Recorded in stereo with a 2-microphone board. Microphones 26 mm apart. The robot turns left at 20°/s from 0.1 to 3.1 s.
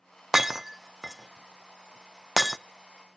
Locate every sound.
0.3 s breaking glass: 10° right (ahead or behind), 0.5 m; by 2.6 s centre (ahead or behind), 0.5 m